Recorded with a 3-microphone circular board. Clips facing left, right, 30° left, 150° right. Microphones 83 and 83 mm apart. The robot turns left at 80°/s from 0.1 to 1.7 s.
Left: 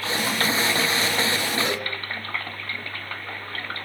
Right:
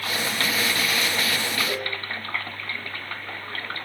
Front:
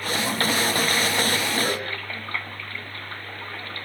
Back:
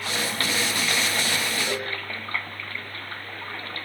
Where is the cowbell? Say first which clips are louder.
Left 1 dB, front 2 dB; 75° left, 3.5 m; by 1.9 s 70° left, 3.5 m.